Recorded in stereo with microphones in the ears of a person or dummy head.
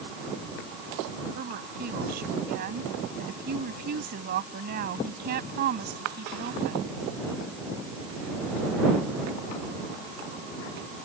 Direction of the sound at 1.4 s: 45° right (ahead or behind).